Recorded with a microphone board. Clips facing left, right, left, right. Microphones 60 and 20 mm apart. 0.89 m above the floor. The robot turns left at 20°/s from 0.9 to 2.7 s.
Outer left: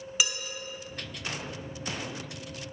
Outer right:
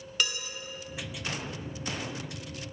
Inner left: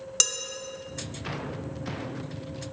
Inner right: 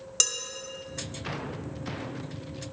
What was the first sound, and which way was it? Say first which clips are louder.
Dishes clattering: even, inner left 1 dB; 5° left (ahead or behind).